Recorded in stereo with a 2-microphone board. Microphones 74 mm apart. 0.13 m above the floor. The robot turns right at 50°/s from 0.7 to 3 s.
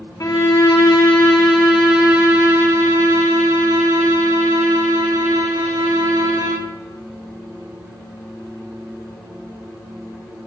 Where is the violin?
135° left, 1.4 m; by 6.7 s 110° right, 1.4 m.